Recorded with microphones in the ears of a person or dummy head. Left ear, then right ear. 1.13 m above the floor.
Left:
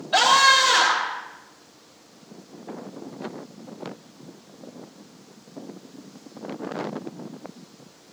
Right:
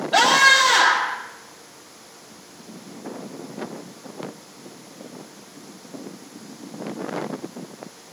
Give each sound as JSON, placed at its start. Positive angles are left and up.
{"t": 0.1, "sound": "a scream", "side_deg": 5, "distance_m": 5.5}